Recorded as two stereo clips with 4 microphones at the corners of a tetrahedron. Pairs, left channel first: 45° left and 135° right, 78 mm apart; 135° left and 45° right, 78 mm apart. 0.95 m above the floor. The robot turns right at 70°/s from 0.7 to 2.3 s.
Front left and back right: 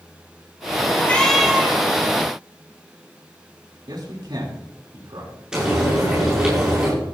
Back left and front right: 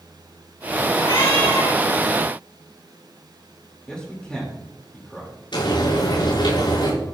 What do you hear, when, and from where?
1.0 s a cat meowing: 110° left, 4 m; by 1.8 s 170° left, 4 m
3.9 s a man speaking: 145° right, 3.5 m
5.5 s frying: 145° left, 9 m